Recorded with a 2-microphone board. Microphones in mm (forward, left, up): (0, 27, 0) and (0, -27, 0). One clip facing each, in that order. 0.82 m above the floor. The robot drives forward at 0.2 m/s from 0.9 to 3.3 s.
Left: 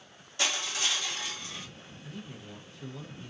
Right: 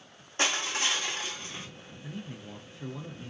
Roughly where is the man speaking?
Right.